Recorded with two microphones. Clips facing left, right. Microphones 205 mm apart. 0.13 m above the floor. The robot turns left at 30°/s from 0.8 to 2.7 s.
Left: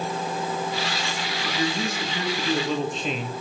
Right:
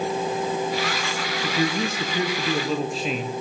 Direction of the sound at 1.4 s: 140° right.